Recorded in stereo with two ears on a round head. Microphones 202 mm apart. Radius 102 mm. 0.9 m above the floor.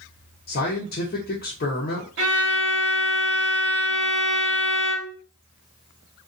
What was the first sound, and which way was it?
A man speaking, 40° left (ahead or behind).